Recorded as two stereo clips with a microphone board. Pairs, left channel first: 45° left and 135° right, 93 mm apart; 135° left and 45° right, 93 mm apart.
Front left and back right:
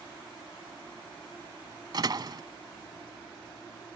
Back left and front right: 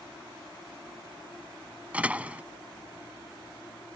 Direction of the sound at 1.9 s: 115° right.